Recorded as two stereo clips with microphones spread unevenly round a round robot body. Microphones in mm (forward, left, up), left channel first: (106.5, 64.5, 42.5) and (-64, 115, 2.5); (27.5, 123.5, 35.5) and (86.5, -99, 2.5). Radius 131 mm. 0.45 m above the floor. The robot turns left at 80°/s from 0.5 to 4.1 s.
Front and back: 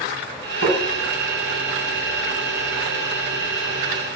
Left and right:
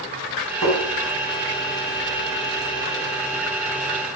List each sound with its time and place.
0.6 s tapping: 80° right, 5 m; by 0.8 s 95° right, 5 m